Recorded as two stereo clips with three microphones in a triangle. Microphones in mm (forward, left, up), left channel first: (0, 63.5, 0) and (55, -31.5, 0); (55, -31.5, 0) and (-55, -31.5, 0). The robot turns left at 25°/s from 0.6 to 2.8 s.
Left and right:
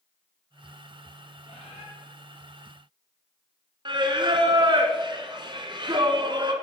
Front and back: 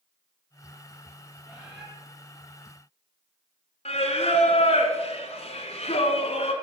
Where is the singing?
15° right, 1.1 m.